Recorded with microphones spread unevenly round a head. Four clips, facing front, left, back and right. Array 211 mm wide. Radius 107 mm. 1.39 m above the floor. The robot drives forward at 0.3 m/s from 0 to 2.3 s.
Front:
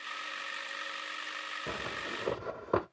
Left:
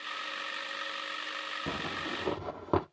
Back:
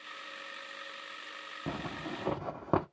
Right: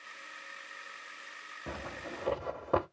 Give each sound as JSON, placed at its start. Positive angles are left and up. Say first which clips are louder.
{"t": 1.7, "sound": "a zipper", "louder": "left 3 dB, back 2 dB", "azimuth_deg": 155, "distance_m": 1.7}